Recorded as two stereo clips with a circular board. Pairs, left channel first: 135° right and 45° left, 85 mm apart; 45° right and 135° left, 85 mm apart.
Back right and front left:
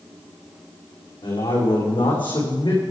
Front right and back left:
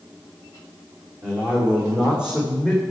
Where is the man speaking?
150° right, 6 m; by 2.8 s 145° right, 6.5 m.